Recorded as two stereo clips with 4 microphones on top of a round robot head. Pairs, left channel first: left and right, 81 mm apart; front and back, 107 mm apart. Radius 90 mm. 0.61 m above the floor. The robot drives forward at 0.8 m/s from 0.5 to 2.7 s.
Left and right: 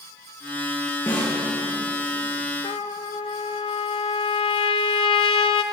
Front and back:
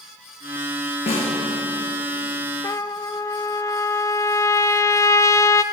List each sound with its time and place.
1.1 s a snare drum: 25° left, 8.5 m
2.6 s a trumpet: 60° left, 0.8 m; by 5.6 s 65° left, 0.8 m